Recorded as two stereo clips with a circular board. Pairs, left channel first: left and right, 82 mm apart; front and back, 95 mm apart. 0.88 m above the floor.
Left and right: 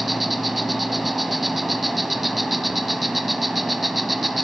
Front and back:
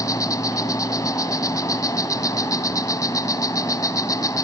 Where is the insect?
Straight ahead, 0.8 m.